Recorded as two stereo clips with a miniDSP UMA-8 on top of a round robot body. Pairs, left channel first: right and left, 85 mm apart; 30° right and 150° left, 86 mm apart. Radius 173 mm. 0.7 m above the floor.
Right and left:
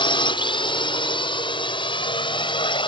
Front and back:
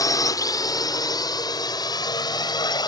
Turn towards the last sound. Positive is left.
turn(degrees=-70)